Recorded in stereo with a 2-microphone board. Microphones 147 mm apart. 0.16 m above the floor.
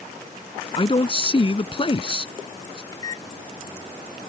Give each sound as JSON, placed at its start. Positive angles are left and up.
{"t": 0.8, "sound": "a man speaking", "side_deg": 35}
{"t": 2.9, "sound": "a microwave", "side_deg": 25}